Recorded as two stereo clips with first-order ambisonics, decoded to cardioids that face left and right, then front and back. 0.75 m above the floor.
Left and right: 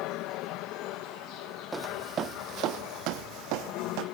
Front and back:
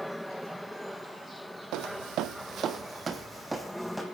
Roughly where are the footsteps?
Behind.